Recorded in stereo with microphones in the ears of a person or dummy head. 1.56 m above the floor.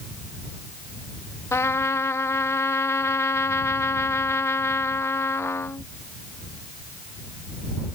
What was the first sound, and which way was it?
A trumpet, 15° left (ahead or behind).